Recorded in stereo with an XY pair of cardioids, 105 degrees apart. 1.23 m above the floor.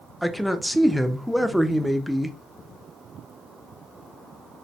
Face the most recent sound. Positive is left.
turn(degrees=0)